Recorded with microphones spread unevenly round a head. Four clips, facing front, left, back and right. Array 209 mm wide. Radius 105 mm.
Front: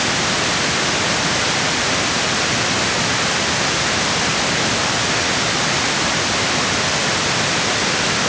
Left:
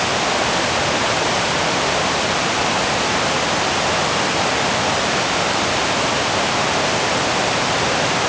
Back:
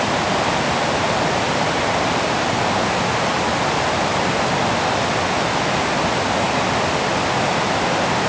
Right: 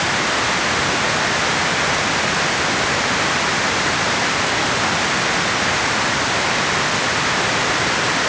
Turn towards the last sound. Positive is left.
No sound to turn to.